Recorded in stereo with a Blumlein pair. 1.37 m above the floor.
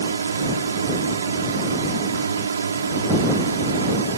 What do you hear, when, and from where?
0.0 s a drone: 70° right